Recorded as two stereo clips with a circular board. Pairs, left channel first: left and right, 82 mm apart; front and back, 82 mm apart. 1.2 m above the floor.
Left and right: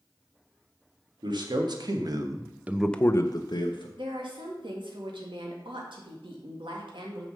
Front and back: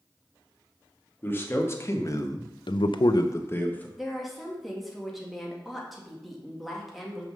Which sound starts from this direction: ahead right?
A man speaking, at 1.2 s.